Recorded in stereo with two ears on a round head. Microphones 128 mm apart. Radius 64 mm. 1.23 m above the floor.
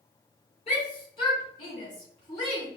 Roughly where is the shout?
Left.